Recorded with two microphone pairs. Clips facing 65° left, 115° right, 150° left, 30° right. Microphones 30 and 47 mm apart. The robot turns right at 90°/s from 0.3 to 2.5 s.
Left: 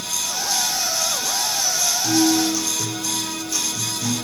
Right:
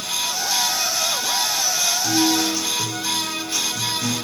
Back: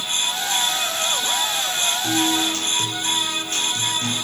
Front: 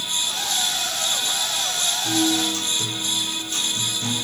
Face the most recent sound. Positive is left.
turn(degrees=-160)